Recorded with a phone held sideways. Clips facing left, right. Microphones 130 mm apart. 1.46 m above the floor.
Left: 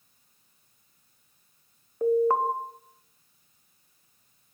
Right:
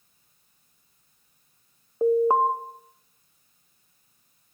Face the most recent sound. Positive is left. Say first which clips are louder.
# right 3 dB
turn(degrees=-20)  # may be behind; listen again after turning